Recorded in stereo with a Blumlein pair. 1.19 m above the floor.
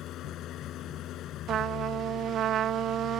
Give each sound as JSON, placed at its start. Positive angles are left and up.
{"t": 0.0, "sound": "an engine running", "azimuth_deg": 30}
{"t": 1.5, "sound": "a trumpet", "azimuth_deg": -30}